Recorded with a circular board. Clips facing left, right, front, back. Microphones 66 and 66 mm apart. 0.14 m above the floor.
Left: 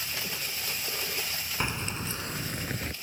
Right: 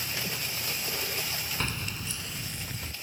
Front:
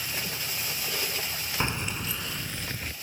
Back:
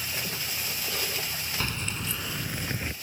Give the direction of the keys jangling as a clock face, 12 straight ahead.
11 o'clock.